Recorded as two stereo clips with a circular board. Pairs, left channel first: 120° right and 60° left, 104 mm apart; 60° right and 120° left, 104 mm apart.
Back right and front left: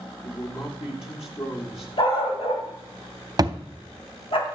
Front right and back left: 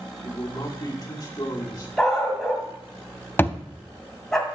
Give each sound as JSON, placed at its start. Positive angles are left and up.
{"t": 0.2, "sound": "a man speaking", "azimuth_deg": -110, "distance_m": 2.0}
{"t": 2.0, "sound": "a dog barking", "azimuth_deg": -145, "distance_m": 2.0}
{"t": 3.4, "sound": "a thud", "azimuth_deg": 10, "distance_m": 0.5}